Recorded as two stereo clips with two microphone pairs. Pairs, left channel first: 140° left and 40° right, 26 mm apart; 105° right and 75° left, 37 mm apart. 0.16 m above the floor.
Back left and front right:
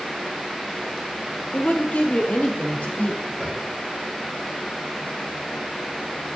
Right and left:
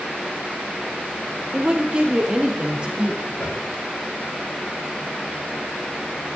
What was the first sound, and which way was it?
A woman speaking, 135° left.